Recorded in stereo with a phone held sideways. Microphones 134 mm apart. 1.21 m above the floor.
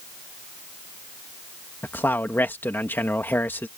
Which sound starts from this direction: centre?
A man speaking, at 1.8 s.